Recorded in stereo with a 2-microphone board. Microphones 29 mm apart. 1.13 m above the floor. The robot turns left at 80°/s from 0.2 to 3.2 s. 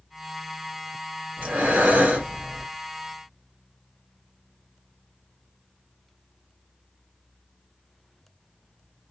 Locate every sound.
1.4 s breathing: 70° right, 1.4 m; by 2.6 s 175° right, 1.4 m